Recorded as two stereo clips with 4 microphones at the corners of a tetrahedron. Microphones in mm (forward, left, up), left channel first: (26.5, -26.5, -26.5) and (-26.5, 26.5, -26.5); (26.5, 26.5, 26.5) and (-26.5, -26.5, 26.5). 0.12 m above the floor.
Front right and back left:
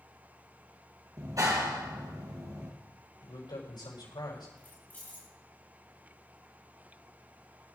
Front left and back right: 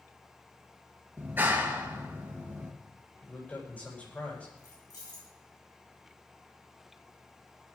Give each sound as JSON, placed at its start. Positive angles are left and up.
{"t": 1.2, "sound": "a clap", "azimuth_deg": 165, "distance_m": 2.0}
{"t": 3.2, "sound": "a man speaking", "azimuth_deg": -25, "distance_m": 7.5}
{"t": 4.6, "sound": "keys jangling", "azimuth_deg": 20, "distance_m": 5.5}